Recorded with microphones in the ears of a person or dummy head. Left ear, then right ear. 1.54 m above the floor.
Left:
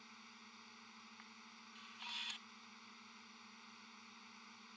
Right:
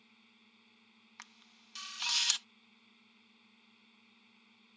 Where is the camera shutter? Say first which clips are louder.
Right 2 dB; 60° right (ahead or behind).